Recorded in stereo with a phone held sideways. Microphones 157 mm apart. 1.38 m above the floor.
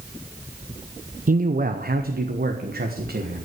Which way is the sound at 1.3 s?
60° right (ahead or behind).